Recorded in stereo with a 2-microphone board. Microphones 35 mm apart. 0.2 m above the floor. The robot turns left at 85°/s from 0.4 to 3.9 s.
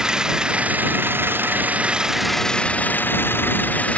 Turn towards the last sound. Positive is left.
turn(degrees=40)